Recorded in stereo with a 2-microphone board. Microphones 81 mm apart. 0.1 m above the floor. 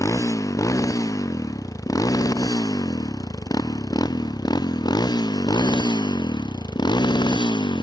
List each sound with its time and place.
0.0 s a motorcycle: 45° left (ahead or behind); by 7.8 s 70° left (ahead or behind)